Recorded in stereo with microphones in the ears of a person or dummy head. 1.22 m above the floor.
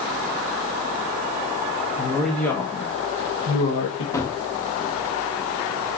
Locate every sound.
2.0 s a woman speaking: 5° left (ahead or behind), 1.5 m; by 4.0 s 75° left (ahead or behind), 1.4 m
4.1 s a gunshot: 10° left (ahead or behind), 0.8 m